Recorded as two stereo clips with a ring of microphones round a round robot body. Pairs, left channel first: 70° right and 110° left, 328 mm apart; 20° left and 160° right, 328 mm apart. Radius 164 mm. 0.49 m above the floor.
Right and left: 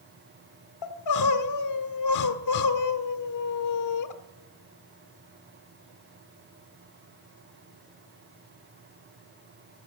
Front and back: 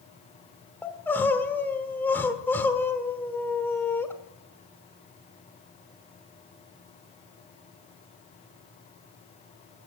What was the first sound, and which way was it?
Crying, 60° right.